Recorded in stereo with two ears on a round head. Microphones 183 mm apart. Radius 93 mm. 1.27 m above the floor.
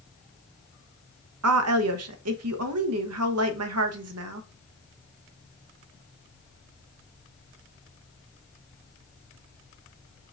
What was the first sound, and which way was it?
A woman speaking, 80° right.